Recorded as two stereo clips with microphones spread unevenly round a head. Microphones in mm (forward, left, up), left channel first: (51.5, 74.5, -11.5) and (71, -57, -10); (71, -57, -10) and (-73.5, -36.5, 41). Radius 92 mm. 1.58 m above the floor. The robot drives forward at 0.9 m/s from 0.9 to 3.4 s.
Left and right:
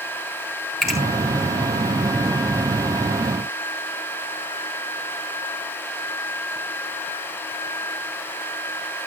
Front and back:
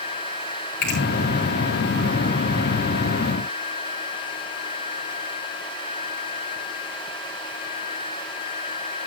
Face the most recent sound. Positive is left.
turn(degrees=15)